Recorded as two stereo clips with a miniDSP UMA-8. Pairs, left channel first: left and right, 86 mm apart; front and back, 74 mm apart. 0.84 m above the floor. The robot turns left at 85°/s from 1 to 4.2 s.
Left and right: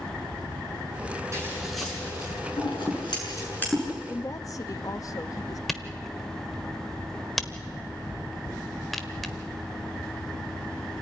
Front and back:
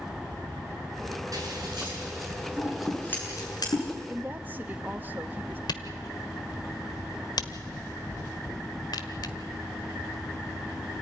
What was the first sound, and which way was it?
Scissors, 145° right.